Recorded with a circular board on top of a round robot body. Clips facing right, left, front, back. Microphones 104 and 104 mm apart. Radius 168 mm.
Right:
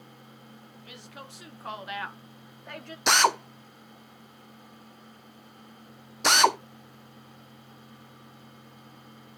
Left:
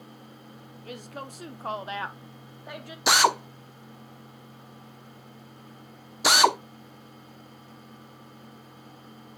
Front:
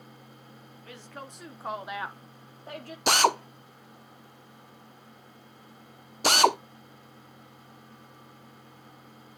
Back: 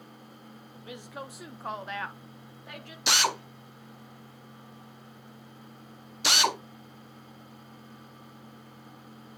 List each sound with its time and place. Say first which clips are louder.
0.8 s a woman speaking: left 8 dB, back 3 dB; 110° left, 1.8 m; by 3.0 s 5° left, 1.5 m
3.1 s a drill: left 1 dB, front 6 dB; 10° left, 1.0 m